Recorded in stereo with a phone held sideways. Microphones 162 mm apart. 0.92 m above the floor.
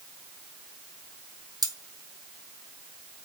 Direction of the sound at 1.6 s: 25° right (ahead or behind).